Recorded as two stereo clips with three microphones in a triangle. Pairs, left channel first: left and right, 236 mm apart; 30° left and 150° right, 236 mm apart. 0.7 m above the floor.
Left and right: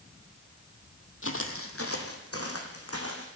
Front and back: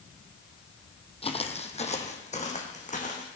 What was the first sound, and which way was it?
Footsteps, 90° left.